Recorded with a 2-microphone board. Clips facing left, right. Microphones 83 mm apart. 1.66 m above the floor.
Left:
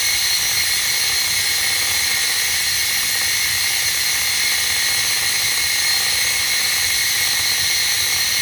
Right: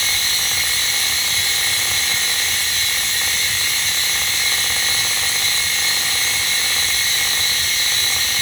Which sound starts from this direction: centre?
Running water, at 0.0 s.